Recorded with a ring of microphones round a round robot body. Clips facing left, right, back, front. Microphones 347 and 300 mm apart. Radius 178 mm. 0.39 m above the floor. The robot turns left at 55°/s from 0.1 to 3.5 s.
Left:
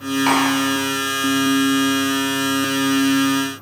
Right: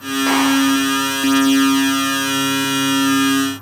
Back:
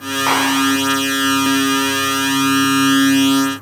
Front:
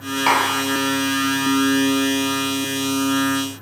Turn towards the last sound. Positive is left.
turn(degrees=-155)